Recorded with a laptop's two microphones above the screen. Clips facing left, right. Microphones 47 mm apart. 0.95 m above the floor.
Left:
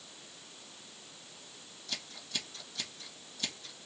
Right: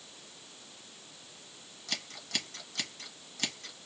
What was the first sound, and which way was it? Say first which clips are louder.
Scissors: right 3 dB; 55° right (ahead or behind).